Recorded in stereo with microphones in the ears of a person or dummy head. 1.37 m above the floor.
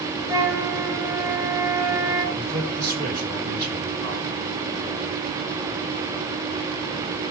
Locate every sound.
0.3 s a flute: 25° right (ahead or behind), 4.5 m
2.4 s a man speaking: 55° right (ahead or behind), 6.5 m